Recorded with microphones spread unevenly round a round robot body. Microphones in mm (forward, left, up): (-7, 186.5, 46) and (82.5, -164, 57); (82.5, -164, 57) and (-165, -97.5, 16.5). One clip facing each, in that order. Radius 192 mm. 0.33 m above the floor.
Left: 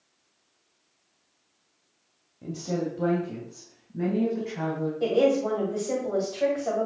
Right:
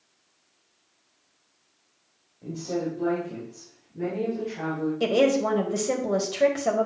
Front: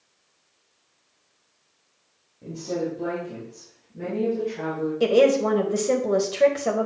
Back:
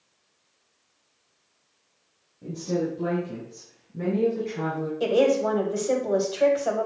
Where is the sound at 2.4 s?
80° left, 2 m; by 4.9 s 130° left, 3.5 m.